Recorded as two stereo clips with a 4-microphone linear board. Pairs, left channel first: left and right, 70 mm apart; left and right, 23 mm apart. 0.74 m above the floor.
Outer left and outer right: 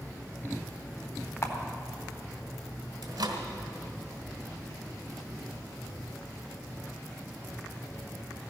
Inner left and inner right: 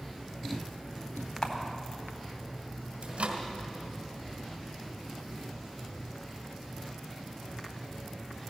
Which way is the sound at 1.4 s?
55° left (ahead or behind).